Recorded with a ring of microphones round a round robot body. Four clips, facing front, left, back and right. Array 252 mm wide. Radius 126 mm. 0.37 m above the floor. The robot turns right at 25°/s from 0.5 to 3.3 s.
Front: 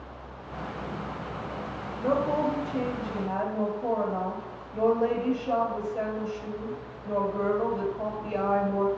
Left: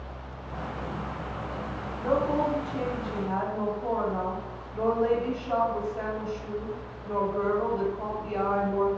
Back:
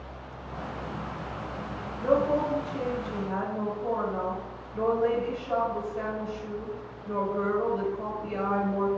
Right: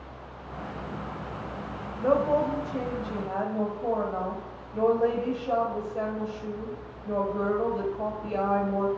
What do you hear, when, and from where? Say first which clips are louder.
2.0 s a woman speaking: right 2 dB, back 1 dB; 85° right, 1.8 m; by 8.9 s 50° right, 1.8 m